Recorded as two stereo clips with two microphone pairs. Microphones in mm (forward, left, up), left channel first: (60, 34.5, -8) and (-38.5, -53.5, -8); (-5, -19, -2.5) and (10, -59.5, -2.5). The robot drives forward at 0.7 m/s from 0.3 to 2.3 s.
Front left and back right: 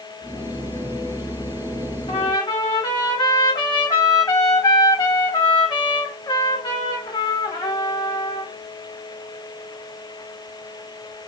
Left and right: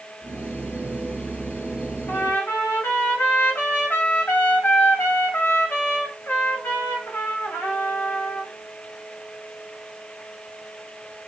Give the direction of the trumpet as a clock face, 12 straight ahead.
9 o'clock.